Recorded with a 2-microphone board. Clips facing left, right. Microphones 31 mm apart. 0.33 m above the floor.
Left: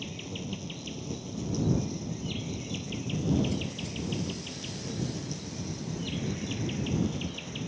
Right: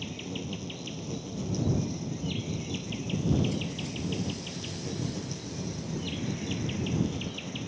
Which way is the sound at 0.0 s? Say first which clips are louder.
Right 1 dB; 5° right (ahead or behind).